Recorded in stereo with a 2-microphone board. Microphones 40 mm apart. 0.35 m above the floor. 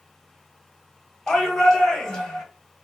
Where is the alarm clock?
I don't hear an alarm clock.